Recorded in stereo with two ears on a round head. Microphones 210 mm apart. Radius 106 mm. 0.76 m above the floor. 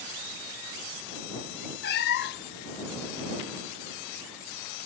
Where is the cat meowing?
45° left (ahead or behind).